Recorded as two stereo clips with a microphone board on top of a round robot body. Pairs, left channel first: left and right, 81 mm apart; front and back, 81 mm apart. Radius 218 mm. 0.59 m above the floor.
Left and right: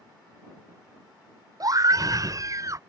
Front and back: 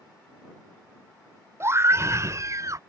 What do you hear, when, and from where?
1.6 s a scream: 125° right; by 2.8 s 135° right